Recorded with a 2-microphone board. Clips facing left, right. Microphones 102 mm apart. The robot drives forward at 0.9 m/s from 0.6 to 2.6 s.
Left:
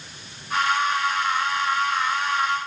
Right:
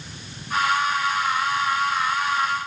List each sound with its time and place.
Only background noise.